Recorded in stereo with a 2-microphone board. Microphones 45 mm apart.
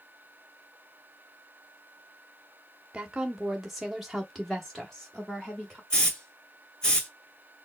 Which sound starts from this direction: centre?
A hiss, at 5.9 s.